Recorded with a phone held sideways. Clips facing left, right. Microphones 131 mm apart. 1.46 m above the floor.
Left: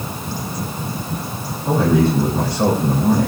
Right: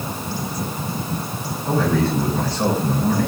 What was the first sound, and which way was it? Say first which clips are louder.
A man speaking: left 4 dB; 25° left (ahead or behind).